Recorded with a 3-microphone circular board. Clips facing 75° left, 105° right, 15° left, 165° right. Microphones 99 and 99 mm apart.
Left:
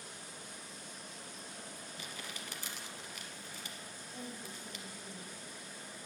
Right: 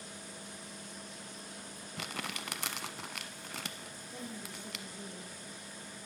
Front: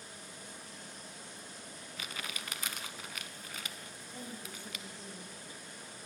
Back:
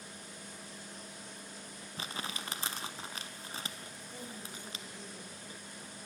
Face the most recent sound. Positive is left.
turn(degrees=-95)